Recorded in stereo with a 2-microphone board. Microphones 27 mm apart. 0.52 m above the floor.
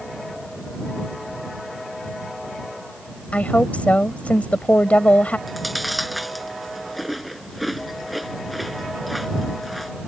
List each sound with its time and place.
3.3 s a woman speaking: 60° left (ahead or behind)
5.5 s chewing: centre (ahead or behind)